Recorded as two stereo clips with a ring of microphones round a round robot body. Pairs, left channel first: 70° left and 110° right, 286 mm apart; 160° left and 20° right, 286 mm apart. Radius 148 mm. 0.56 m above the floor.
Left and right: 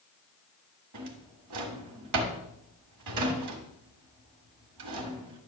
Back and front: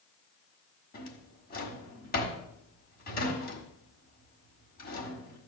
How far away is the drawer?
About 1.6 m.